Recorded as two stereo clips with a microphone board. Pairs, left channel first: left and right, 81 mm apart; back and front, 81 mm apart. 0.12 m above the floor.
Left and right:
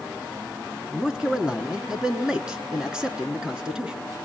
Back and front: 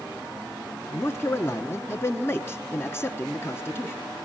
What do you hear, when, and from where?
0.9 s a man speaking: 165° right, 1.2 m